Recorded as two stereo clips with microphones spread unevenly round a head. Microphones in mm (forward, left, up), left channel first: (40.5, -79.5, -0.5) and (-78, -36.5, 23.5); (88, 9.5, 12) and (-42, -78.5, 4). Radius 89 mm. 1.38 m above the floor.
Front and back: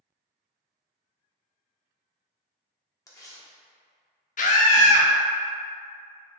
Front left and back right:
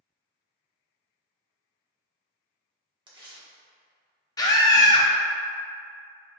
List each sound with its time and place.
3.1 s tearing paper: 85° right, 1.2 m
4.4 s a scream: 35° right, 0.9 m